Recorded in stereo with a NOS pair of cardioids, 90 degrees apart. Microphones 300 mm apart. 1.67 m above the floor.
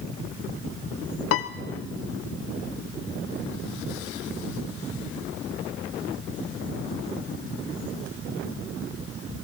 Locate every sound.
1.3 s a piano: 55° left, 0.8 m